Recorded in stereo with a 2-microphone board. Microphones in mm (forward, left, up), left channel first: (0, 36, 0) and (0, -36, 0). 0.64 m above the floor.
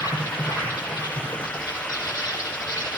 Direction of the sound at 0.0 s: 60° left (ahead or behind).